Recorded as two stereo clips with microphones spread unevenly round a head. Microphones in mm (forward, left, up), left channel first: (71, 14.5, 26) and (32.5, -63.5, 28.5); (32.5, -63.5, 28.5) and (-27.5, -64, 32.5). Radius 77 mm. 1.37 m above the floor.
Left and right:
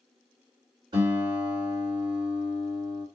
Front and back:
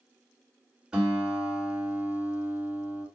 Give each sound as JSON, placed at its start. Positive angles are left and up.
{"t": 0.9, "sound": "a guitar", "azimuth_deg": -110, "distance_m": 1.3}